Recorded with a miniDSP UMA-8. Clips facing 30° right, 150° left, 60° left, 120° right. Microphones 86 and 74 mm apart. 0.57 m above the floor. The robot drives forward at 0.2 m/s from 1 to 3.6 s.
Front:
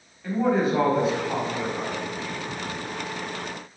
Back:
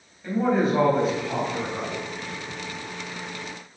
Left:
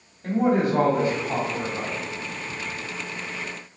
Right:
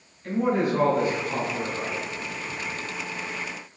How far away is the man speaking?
About 3.5 m.